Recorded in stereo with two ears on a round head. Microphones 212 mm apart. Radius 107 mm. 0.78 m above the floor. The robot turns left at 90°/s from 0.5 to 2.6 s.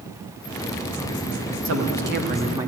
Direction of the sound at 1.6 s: 80° right.